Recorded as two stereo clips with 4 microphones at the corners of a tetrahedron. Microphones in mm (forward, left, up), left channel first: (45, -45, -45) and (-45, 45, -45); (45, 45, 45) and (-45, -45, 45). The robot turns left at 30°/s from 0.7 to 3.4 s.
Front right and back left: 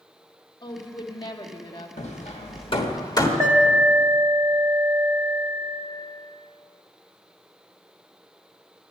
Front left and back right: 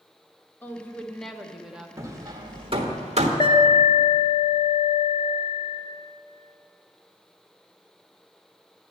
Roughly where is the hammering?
Right.